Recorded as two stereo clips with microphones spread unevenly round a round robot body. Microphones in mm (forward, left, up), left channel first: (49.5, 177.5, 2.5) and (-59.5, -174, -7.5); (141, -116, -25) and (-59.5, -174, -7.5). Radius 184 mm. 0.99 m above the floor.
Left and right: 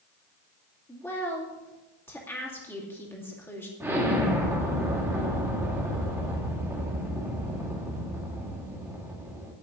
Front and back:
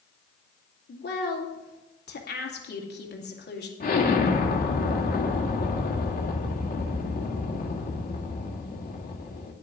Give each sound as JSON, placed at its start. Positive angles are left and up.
{"t": 0.9, "sound": "a woman speaking", "azimuth_deg": -10, "distance_m": 2.5}
{"t": 3.8, "sound": "an explosion", "azimuth_deg": -25, "distance_m": 2.0}